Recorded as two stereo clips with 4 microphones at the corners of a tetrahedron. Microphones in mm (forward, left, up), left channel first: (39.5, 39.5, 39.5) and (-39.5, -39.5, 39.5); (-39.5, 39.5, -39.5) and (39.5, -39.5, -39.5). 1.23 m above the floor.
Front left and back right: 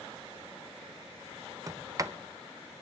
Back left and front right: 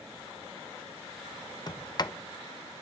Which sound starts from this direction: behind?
A sliding door, at 1.7 s.